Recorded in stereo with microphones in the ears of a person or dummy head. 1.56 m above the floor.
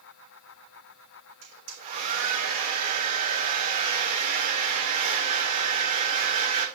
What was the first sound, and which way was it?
A hair dryer, 40° right (ahead or behind).